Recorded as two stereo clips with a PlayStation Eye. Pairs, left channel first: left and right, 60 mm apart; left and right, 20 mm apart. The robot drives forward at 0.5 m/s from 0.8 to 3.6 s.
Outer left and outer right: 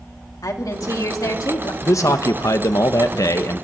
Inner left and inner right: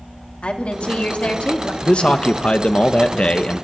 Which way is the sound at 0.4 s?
80° left.